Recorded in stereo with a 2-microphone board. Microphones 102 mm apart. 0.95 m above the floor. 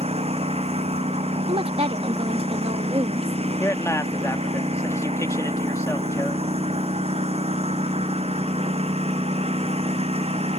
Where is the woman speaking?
70° right (ahead or behind).